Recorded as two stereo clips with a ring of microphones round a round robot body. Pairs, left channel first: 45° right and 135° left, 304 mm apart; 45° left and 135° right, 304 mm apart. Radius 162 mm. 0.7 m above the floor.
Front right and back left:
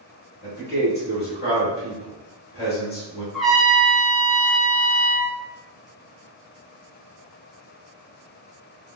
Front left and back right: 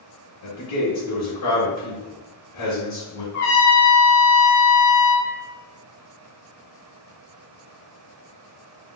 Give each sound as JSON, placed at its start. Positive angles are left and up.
{"t": 0.4, "sound": "a man speaking", "azimuth_deg": 10, "distance_m": 1.7}
{"t": 3.3, "sound": "a trumpet", "azimuth_deg": 45, "distance_m": 0.9}